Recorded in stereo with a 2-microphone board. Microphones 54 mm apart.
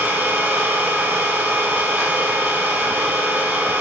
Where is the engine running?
30° right (ahead or behind), 4 m.